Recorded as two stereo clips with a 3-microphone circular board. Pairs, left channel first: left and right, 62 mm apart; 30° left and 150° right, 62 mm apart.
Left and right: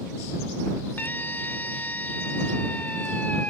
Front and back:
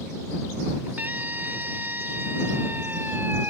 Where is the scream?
150° left; by 3.5 s 155° left.